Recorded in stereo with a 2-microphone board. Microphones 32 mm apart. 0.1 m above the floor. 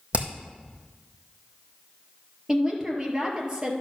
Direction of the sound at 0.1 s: 45° right (ahead or behind).